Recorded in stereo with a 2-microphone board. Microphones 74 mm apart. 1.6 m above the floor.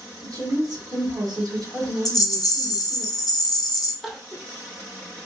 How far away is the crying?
About 0.5 m.